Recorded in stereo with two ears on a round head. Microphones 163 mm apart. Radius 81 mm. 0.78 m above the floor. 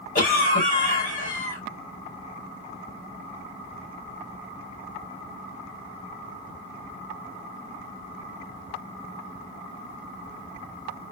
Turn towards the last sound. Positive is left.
turn(degrees=45)  # may be behind; listen again after turning